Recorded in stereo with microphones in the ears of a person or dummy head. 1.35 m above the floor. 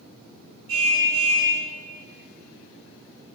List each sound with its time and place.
0.7 s a car horn: 80° right, 8.5 m